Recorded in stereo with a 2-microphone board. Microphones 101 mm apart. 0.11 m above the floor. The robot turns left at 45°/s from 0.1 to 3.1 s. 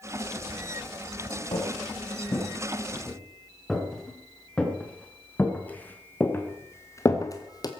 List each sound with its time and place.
1.5 s footsteps: 70° left (ahead or behind), 6 m; by 7.7 s 40° left (ahead or behind), 2 m